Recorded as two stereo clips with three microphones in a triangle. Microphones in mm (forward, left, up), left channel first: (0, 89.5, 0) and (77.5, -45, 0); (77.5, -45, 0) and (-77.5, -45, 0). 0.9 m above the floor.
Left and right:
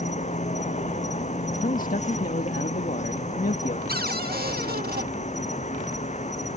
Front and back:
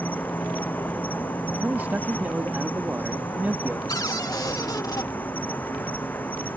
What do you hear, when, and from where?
0.0 s an insect: 80° left
1.6 s a man speaking: 105° left
3.9 s a cupboard door: 65° right